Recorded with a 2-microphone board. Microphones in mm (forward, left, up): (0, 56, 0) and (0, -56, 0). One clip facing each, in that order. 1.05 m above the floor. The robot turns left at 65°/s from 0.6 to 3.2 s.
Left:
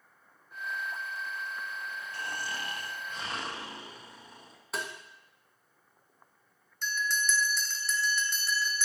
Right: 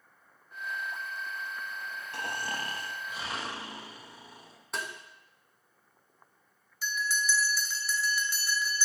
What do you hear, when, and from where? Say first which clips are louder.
2.1 s snoring: right 3 dB; 105° right, 0.9 m; by 4.6 s 175° right, 0.9 m
4.7 s tapping: even; centre (ahead or behind), 1.3 m
6.8 s a bell: even; 5° right (ahead or behind), 0.8 m